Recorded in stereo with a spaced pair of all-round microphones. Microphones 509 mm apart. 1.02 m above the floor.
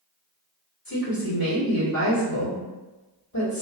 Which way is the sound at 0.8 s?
45° left (ahead or behind).